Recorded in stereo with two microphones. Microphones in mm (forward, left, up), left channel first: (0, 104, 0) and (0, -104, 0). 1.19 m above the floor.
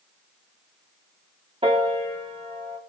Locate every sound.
1.6 s a piano: 30° right (ahead or behind), 2 m